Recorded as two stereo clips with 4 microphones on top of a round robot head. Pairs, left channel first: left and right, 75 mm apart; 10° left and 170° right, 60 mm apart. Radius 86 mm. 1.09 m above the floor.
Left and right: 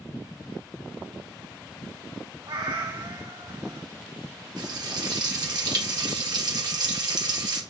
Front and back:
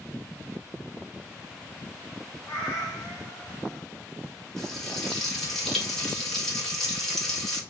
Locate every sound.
2.5 s a cat meowing: 65° right, 1.3 m
4.6 s frying: 75° right, 1.5 m